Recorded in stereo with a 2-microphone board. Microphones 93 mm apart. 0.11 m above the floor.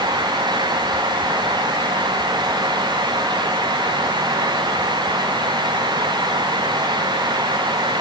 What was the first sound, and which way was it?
Only background noise.